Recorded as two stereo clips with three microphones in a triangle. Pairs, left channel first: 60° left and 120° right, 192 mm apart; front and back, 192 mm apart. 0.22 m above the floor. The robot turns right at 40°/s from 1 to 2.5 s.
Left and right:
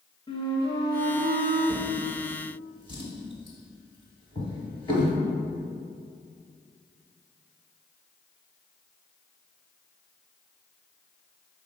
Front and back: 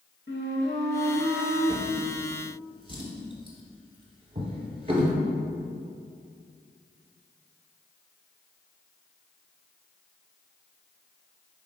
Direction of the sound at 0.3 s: 5° right.